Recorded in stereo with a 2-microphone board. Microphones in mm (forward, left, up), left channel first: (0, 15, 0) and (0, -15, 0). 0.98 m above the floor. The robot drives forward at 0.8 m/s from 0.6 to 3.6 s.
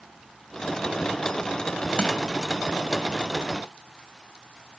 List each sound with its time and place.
2.0 s crushing: 35° left (ahead or behind), 2.5 m; by 2.2 s 30° left (ahead or behind), 3 m